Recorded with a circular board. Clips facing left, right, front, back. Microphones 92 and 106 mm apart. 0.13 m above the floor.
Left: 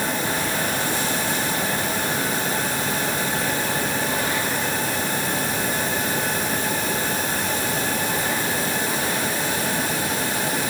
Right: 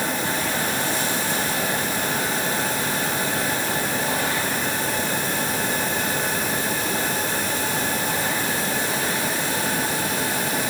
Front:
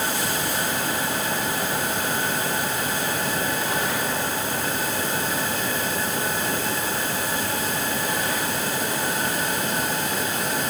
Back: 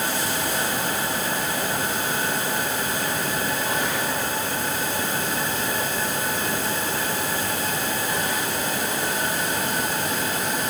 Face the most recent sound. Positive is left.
No sound to turn to.